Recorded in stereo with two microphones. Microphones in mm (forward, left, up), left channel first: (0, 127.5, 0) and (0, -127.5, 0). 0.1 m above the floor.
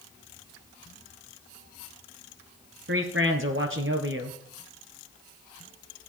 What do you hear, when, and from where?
2.9 s a man speaking: 50° right (ahead or behind), 1.6 m